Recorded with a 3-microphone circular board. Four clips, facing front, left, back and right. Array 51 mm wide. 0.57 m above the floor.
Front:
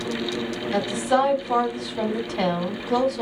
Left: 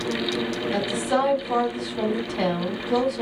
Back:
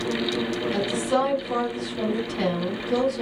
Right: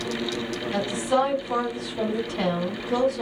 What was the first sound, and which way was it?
A woman speaking, 10° left.